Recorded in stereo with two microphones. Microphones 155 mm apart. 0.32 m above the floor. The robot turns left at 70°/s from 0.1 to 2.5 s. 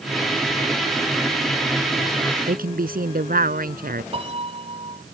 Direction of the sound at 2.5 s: 70° right (ahead or behind).